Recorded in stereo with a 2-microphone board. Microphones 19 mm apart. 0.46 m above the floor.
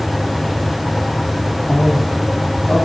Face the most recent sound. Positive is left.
turn(degrees=70)  # may be behind; listen again after turning